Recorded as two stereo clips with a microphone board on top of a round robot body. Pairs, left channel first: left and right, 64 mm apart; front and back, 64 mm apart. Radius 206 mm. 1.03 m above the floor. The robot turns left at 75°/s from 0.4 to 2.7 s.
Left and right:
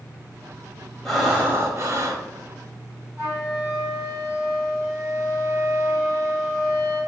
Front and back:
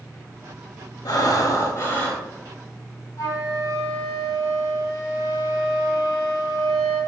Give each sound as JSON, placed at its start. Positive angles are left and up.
{"t": 1.1, "sound": "breathing", "azimuth_deg": 5, "distance_m": 1.5}
{"t": 3.2, "sound": "a flute", "azimuth_deg": -15, "distance_m": 0.8}